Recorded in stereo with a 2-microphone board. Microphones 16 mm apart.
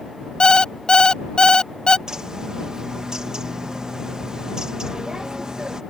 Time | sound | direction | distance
0.4 | an alarm clock | 65° left (ahead or behind) | ?
2.1 | a bird | 50° right (ahead or behind) | ?